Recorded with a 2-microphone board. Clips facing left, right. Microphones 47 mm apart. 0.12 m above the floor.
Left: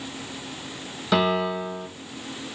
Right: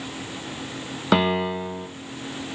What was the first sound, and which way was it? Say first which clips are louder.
A piano: right 1 dB; 30° right (ahead or behind).